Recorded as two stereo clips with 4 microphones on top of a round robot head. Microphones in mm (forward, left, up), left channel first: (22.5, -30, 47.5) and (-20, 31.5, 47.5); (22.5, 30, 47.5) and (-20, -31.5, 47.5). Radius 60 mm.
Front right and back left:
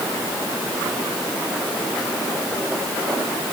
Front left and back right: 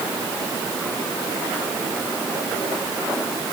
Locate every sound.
Only background noise.